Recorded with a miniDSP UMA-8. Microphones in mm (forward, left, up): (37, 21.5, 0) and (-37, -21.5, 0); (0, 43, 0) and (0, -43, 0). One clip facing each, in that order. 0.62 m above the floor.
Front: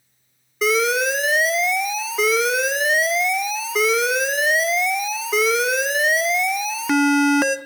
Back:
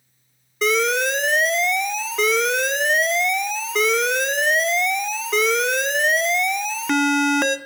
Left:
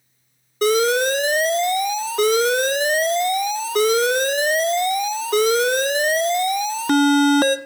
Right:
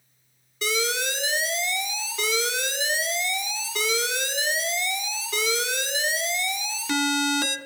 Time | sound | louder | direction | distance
0.6 | an alarm | front 1 dB, left 11 dB | 115° left | 1.0 m